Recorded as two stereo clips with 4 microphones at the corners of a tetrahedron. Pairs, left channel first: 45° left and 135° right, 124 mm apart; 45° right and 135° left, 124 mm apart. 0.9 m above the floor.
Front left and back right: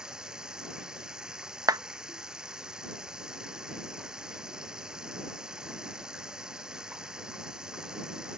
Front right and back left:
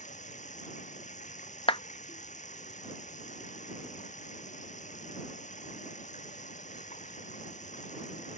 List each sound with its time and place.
0.0 s running water: 50° right
1.7 s a clap: 80° right